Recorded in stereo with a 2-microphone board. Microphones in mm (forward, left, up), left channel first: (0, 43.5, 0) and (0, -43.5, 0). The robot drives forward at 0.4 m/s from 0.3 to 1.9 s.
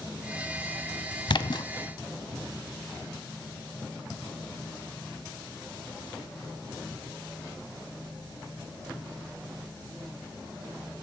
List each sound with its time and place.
1.3 s a splash: 65° left (ahead or behind), 0.7 m; by 1.7 s 55° left (ahead or behind), 0.8 m